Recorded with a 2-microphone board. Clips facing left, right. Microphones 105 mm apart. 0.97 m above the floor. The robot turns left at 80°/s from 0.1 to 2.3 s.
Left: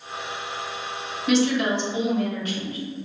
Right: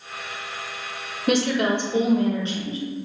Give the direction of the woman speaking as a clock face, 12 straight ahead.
2 o'clock.